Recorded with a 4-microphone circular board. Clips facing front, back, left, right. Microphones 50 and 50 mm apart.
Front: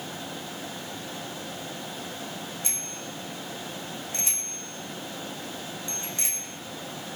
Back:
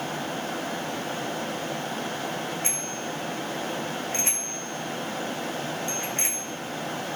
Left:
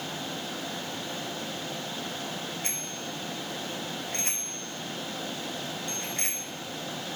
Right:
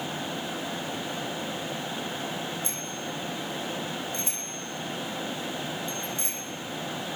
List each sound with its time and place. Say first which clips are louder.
2.6 s a bicycle bell: back 6 dB, right 2 dB; 130° left, 6.5 m